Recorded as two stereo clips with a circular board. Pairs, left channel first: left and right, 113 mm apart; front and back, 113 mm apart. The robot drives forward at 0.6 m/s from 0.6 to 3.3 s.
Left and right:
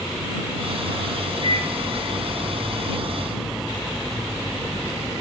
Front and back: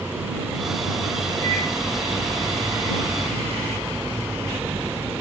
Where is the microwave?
65° left, 4 m.